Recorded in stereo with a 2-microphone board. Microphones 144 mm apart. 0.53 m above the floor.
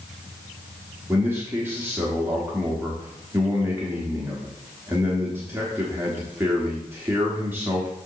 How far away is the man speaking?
About 1.3 m.